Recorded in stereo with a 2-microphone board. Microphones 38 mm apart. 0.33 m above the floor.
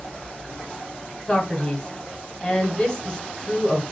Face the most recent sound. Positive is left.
turn(degrees=10)  # may be behind; listen again after turning